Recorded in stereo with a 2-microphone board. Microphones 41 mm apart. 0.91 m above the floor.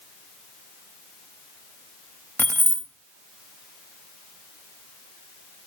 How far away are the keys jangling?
About 0.7 m.